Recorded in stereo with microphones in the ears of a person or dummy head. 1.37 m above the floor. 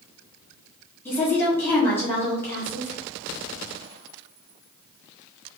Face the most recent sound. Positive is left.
turn(degrees=15)  # may be behind; listen again after turning